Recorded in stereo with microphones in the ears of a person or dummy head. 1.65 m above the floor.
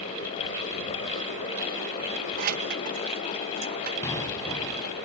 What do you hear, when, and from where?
2.4 s keys jangling: 40° right (ahead or behind); by 3.9 s 45° right (ahead or behind)
4.0 s an explosion: 20° left (ahead or behind)